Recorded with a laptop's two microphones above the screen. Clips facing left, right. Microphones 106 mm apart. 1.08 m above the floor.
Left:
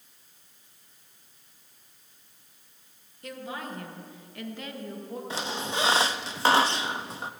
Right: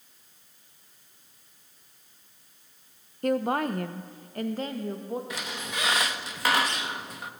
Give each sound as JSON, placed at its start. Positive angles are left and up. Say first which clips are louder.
{"t": 3.2, "sound": "a woman speaking", "louder": "right 12 dB", "side_deg": -50, "distance_m": 0.6}
{"t": 5.3, "sound": "a squeak", "louder": "left 4 dB", "side_deg": 30, "distance_m": 0.5}